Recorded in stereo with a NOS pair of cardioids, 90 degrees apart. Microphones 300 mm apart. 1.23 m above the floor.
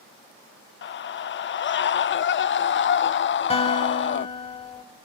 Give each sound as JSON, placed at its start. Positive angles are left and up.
{"t": 0.8, "sound": "a scream", "azimuth_deg": 40, "distance_m": 0.6}
{"t": 3.5, "sound": "a guitar", "azimuth_deg": 20, "distance_m": 2.5}